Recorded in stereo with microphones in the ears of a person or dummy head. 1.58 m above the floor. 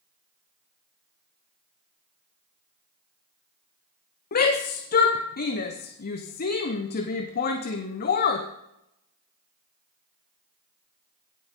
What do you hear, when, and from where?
4.3 s a shout: 50° left (ahead or behind), 0.9 m